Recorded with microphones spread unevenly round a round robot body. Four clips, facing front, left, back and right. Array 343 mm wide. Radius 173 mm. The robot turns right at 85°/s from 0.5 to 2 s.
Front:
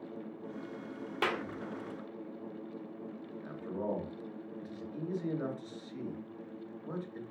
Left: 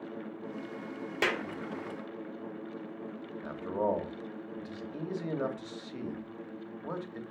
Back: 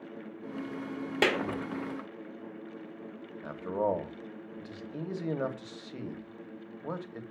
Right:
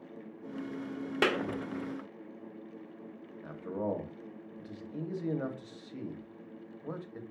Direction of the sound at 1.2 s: 155° right.